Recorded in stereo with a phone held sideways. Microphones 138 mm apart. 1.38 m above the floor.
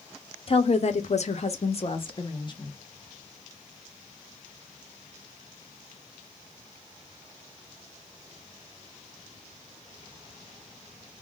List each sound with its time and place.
0.5 s a woman speaking: 45° left (ahead or behind), 0.7 m; by 2.8 s 30° left (ahead or behind), 1.0 m